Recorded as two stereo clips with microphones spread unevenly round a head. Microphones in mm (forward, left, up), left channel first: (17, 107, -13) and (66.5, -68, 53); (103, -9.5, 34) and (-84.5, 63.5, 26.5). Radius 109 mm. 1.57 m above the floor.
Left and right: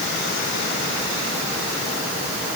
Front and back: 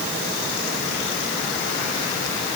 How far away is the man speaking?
No man speaking in this recording.